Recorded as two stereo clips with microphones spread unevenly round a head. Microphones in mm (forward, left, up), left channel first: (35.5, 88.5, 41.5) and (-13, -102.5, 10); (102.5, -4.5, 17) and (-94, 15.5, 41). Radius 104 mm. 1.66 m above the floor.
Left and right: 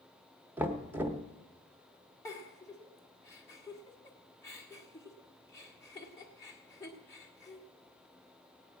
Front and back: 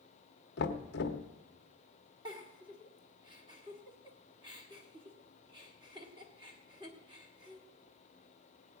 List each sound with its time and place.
0.6 s knocking: 15° right, 0.8 m
2.2 s a giggle: 130° left, 1.3 m